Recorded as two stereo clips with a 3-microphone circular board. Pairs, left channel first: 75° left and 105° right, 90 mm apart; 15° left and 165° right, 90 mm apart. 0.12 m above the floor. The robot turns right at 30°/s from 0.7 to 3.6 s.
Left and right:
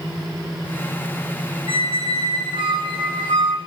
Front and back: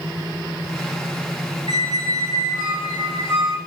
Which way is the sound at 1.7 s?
130° right.